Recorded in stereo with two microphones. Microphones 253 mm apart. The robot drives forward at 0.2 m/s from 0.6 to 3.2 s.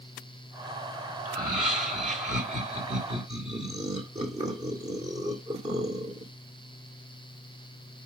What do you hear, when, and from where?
1.2 s laughter: 30° right (ahead or behind), 2 m; by 6.3 s 25° right (ahead or behind), 2.5 m